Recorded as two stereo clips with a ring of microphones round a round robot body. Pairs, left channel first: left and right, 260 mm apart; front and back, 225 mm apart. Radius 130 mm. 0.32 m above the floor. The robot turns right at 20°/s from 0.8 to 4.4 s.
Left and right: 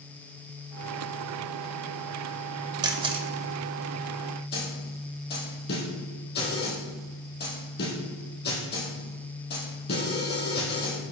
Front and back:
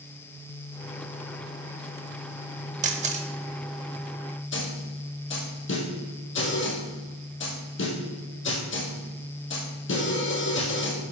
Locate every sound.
2.8 s a camera shutter: 150° right, 0.7 m; by 3.3 s 145° right, 0.7 m
4.5 s a snare drum: 35° left, 2.5 m